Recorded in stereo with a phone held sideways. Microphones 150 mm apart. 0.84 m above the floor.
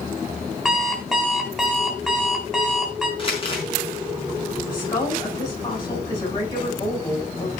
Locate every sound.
0.7 s an alarm clock: centre (ahead or behind), 3.5 m
3.2 s crumpling: 35° left (ahead or behind), 5 m
4.7 s a woman speaking: 30° left (ahead or behind), 8.5 m